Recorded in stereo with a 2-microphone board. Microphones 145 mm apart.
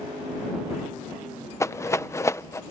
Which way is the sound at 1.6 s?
20° left (ahead or behind).